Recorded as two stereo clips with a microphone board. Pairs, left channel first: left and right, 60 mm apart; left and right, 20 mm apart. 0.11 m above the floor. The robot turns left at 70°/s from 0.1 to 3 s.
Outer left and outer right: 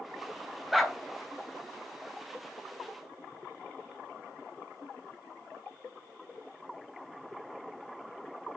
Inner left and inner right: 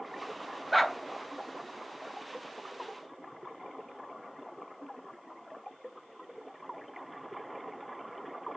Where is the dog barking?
Centre (ahead or behind), 0.6 m; by 1.0 s 5° left (ahead or behind), 0.6 m.